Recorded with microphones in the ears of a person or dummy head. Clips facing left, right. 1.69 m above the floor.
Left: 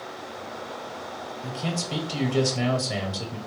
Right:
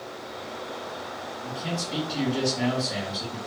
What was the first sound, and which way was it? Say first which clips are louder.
A man speaking: left 2 dB; 45° left (ahead or behind).